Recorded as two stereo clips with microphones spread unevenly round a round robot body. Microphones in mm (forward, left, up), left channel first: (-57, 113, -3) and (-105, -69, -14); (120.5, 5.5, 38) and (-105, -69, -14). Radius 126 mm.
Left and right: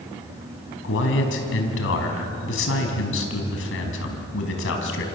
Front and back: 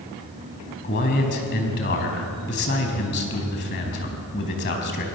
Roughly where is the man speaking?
Left.